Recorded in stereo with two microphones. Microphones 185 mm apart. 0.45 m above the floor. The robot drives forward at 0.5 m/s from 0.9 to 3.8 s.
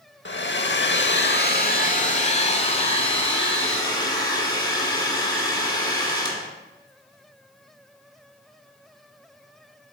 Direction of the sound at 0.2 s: 80° left.